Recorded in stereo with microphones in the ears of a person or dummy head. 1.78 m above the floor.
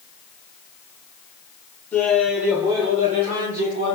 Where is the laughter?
10° left (ahead or behind), 0.9 m; by 4.0 s 55° right (ahead or behind), 1.5 m.